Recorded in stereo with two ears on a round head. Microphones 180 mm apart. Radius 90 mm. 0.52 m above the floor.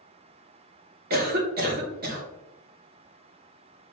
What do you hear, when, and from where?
1.1 s a cough: 50° right (ahead or behind), 1.1 m